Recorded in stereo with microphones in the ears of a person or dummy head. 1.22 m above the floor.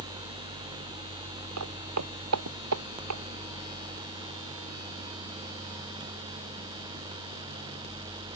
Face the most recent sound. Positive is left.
turn(degrees=-80)